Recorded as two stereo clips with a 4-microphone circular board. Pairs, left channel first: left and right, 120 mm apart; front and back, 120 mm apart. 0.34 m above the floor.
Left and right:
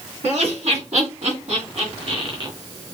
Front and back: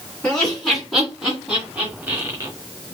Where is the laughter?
75° right, 2.5 m; by 2.5 s 125° right, 1.3 m.